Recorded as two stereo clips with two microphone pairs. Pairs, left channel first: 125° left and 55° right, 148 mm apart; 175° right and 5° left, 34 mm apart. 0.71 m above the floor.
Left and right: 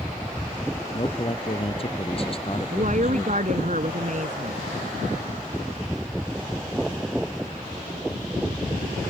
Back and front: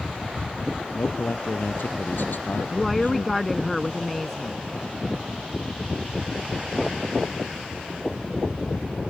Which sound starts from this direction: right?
A woman speaking, at 2.7 s.